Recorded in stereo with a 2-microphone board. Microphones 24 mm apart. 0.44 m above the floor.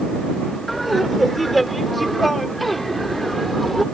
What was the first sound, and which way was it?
Laughter, centre (ahead or behind).